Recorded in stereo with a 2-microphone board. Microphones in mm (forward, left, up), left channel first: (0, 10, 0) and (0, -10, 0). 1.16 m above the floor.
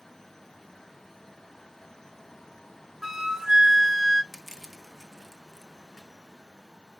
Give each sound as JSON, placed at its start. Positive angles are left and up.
{"t": 3.0, "sound": "a flute", "side_deg": -20, "distance_m": 0.6}
{"t": 4.3, "sound": "crushing", "side_deg": -15, "distance_m": 1.5}